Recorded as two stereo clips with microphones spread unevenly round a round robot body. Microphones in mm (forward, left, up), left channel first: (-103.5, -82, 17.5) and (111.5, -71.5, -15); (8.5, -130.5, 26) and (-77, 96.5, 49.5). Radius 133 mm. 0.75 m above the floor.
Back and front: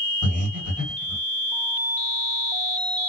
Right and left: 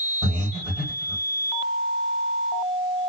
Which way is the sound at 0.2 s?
20° left.